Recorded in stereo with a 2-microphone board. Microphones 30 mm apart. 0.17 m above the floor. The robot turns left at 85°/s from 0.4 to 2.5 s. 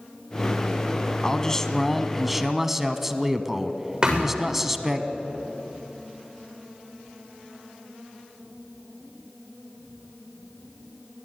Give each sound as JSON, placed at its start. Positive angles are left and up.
{"t": 1.2, "sound": "a man speaking", "side_deg": 20, "distance_m": 1.0}
{"t": 4.0, "sound": "a thud", "side_deg": -25, "distance_m": 8.0}